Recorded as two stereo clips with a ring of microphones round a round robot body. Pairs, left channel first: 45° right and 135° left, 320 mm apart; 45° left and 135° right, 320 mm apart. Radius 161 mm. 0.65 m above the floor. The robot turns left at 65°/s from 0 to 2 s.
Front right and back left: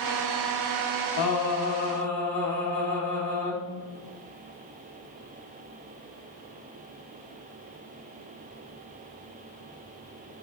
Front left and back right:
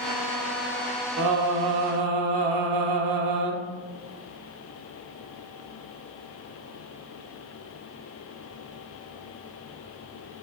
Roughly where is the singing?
Right.